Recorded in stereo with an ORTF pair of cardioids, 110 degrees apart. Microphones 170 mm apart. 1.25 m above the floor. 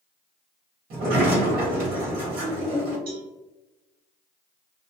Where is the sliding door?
65° right, 1.6 m.